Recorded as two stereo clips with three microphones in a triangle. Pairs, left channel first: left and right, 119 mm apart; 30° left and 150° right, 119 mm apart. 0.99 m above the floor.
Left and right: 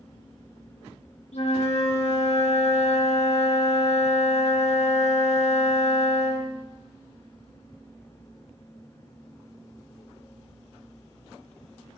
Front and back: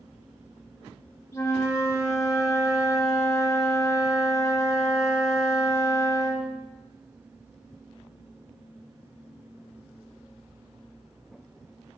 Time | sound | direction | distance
1.3 | a flute | 90° left | 1.4 m